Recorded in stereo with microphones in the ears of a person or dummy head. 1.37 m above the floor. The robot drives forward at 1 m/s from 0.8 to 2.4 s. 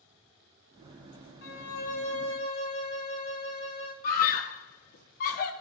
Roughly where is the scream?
Left.